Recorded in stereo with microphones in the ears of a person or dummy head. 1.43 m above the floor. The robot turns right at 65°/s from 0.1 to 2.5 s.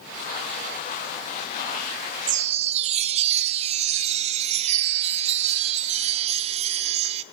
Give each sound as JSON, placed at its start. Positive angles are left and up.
{"t": 2.3, "sound": "a chime", "side_deg": -55, "distance_m": 0.5}